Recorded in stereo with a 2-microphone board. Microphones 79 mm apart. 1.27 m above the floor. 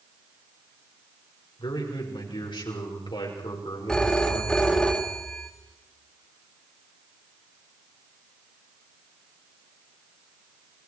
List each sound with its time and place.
1.6 s a man speaking: 80° left, 5.5 m
3.9 s a phone ringing: 10° left (ahead or behind), 2.5 m